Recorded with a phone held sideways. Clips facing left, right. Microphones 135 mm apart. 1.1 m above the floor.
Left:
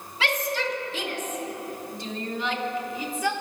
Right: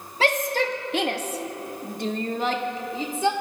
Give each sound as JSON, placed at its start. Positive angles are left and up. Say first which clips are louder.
{"t": 0.2, "sound": "a shout", "louder": "right 5 dB", "side_deg": -45, "distance_m": 2.5}